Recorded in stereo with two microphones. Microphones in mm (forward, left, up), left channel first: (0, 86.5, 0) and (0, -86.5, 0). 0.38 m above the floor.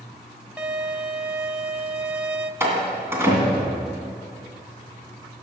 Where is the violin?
5° right (ahead or behind), 0.6 m.